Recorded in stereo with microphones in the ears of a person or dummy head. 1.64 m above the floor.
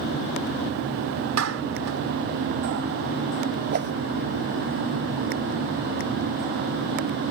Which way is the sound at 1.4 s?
80° right.